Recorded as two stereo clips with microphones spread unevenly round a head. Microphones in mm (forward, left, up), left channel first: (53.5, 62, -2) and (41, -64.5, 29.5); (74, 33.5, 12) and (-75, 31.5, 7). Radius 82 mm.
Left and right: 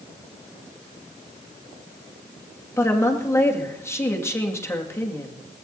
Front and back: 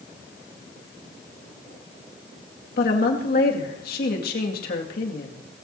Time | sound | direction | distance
2.8 | a woman speaking | 10° left | 2 m